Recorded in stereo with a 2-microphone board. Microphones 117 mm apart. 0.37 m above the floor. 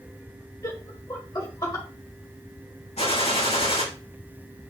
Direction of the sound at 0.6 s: 35° left (ahead or behind).